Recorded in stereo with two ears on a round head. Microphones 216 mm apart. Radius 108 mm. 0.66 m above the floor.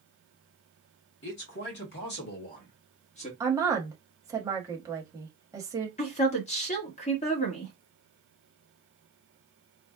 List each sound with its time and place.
1.2 s a man speaking: 50° left (ahead or behind), 1.9 m; by 3.3 s 25° left (ahead or behind), 1.2 m
3.4 s a woman speaking: 15° right (ahead or behind), 1.0 m
6.0 s a woman speaking: 30° left (ahead or behind), 1.2 m